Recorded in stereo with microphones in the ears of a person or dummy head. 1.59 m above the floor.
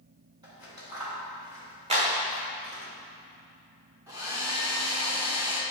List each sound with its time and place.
0.4 s scissors: 25° right (ahead or behind), 2.5 m
1.9 s a clap: 30° right (ahead or behind), 1.5 m
4.1 s a hair dryer: 10° right (ahead or behind), 0.7 m